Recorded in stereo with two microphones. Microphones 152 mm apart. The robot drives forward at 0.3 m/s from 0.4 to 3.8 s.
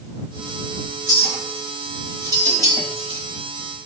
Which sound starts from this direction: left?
A clink, at 1.1 s.